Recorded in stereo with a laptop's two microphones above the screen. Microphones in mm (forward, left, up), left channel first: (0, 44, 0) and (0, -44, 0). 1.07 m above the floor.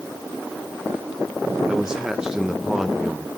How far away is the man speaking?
About 0.7 m.